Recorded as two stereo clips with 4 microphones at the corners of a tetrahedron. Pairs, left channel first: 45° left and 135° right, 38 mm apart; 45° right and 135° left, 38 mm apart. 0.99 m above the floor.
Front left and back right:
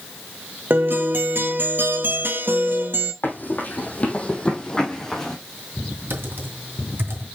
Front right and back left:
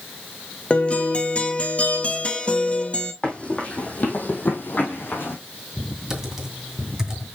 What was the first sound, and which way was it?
A guitar, 100° right.